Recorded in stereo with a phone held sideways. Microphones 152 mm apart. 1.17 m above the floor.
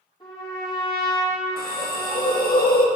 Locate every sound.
0.2 s a trumpet: 30° left (ahead or behind), 2.5 m
1.6 s a hiss: 75° left (ahead or behind), 1.1 m